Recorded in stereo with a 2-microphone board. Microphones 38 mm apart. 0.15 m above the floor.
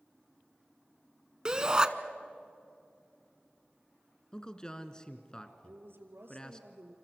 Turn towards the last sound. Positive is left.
turn(degrees=-70)  # may be behind; listen again after turning